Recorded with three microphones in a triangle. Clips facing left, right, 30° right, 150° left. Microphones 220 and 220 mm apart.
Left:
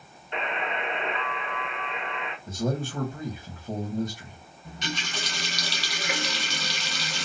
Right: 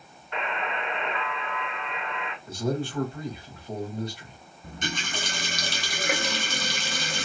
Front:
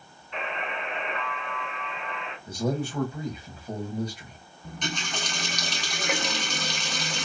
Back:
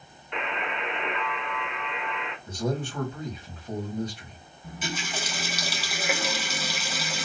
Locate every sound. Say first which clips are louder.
0.3 s a buzzer: left 1 dB, back 1 dB; 155° left, 0.9 m
2.5 s a man speaking: right 1 dB, front 2 dB; 50° left, 1.7 m
4.6 s a running tap: right 1 dB, even; 125° right, 0.9 m